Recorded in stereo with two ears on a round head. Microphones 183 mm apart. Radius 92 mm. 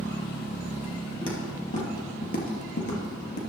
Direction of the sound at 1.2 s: 25° left (ahead or behind).